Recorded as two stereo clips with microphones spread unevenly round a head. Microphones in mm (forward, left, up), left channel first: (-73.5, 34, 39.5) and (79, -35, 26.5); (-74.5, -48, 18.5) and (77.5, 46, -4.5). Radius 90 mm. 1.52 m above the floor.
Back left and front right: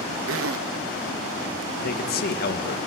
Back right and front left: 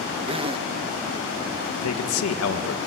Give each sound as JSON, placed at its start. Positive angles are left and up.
{"t": 0.3, "sound": "a zipper", "azimuth_deg": -35, "distance_m": 0.6}
{"t": 1.8, "sound": "a man speaking", "azimuth_deg": -165, "distance_m": 1.9}